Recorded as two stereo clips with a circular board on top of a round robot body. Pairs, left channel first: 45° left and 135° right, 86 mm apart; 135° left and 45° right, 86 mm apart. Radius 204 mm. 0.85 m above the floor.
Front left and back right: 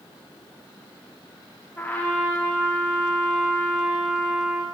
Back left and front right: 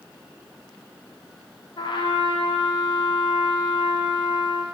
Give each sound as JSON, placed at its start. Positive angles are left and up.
{"t": 1.8, "sound": "a trumpet", "azimuth_deg": 110, "distance_m": 1.1}